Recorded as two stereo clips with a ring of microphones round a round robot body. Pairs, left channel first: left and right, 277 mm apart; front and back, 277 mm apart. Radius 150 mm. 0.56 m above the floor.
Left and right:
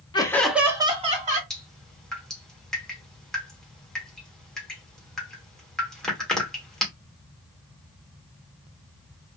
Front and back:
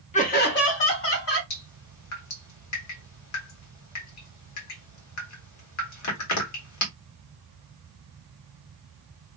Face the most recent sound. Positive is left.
turn(degrees=0)